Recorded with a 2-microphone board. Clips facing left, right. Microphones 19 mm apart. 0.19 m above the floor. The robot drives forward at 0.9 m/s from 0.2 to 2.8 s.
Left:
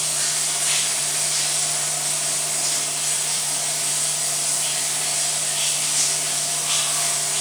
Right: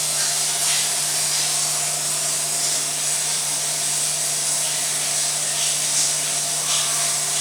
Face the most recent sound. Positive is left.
turn(degrees=-50)  # may be behind; listen again after turning